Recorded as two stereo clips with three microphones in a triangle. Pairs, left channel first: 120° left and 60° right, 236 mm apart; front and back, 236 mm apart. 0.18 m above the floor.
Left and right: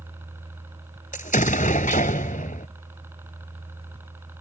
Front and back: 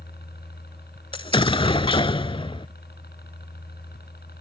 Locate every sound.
0.0 s a helicopter: 15° left
1.1 s an explosion: 70° left